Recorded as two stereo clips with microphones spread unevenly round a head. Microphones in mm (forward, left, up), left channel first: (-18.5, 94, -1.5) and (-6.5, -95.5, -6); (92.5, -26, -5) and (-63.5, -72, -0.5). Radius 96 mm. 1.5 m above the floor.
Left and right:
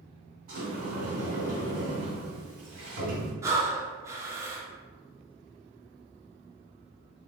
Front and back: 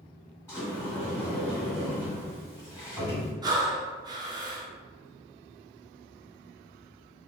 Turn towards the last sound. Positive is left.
turn(degrees=-145)